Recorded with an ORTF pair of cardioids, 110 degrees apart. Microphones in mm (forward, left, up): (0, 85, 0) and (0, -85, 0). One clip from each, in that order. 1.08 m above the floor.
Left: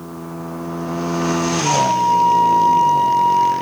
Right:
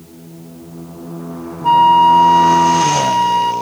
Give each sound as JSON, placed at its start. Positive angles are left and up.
{"t": 1.6, "sound": "a flute", "azimuth_deg": -55, "distance_m": 1.7}